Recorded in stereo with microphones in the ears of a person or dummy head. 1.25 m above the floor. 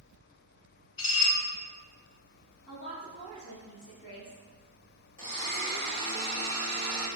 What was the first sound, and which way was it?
Dishes clattering, 25° left (ahead or behind).